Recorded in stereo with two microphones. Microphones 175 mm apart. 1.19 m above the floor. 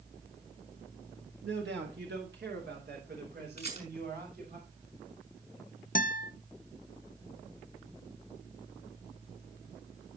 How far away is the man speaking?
About 1.3 m.